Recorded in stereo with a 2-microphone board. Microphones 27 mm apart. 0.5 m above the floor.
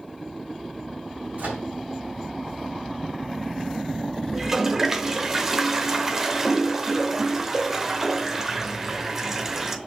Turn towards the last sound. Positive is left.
turn(degrees=-10)  # may be behind; listen again after turning